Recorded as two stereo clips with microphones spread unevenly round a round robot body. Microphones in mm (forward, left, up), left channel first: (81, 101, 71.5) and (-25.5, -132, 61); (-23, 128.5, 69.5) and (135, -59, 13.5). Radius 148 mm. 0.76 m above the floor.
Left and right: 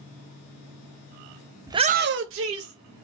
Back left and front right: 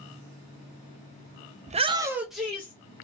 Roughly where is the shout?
Ahead right.